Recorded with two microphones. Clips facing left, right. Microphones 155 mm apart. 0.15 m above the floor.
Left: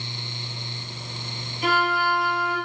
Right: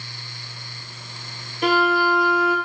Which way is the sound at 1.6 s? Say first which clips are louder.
Right 5 dB; 70° right (ahead or behind).